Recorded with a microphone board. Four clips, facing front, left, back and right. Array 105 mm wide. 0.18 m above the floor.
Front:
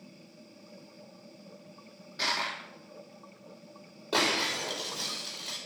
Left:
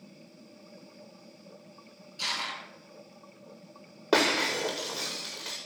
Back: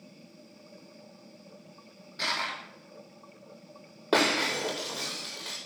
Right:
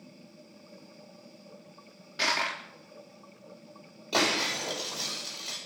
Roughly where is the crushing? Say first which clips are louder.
Right 6 dB, even; right.